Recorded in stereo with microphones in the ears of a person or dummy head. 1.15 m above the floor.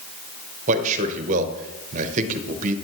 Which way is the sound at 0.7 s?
45° right (ahead or behind).